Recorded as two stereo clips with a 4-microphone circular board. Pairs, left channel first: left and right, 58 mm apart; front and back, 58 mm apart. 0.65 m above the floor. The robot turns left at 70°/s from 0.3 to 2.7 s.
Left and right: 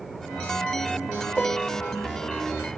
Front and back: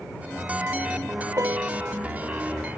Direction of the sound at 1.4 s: 165° left.